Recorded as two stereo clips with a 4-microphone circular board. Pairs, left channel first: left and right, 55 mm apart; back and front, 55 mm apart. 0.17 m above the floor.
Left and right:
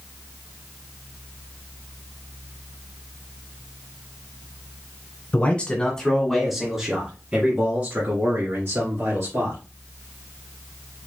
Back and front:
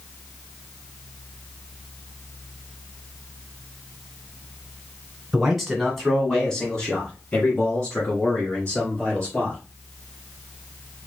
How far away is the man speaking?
About 1.7 m.